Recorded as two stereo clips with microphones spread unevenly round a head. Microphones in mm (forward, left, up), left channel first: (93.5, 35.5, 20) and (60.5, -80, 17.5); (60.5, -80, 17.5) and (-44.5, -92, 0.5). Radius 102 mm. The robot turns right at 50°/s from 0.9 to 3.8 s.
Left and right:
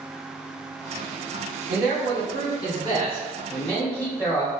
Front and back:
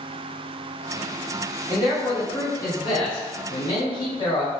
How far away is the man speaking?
About 1.9 m.